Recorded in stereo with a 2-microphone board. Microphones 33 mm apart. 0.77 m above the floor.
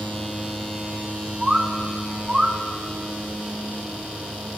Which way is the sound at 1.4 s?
20° right (ahead or behind).